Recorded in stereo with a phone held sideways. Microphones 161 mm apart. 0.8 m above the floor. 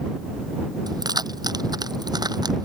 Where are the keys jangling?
25° right (ahead or behind).